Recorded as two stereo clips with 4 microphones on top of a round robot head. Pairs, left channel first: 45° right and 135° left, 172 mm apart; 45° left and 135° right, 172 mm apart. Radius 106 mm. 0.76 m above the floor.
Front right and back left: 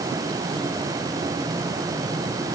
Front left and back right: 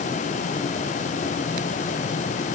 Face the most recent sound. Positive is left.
No sound to turn to.